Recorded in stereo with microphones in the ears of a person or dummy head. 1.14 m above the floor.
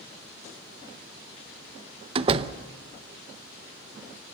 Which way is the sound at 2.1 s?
35° right (ahead or behind).